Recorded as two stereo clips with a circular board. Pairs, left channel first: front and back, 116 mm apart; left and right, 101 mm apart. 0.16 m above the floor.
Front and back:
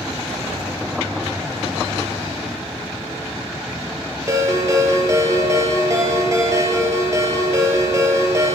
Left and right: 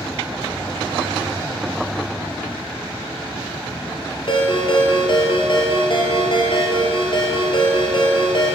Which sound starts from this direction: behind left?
A ringtone, at 4.3 s.